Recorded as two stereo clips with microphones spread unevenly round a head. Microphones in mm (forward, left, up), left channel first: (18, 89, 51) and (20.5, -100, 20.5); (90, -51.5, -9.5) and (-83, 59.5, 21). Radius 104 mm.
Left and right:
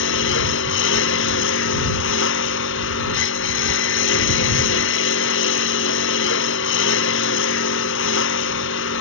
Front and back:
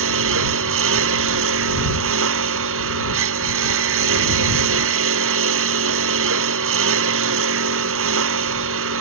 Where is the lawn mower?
120° left.